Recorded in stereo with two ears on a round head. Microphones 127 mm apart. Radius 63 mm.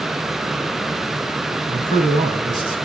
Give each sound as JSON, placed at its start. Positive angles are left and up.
{"t": 1.7, "sound": "a man speaking", "side_deg": -30, "distance_m": 3.5}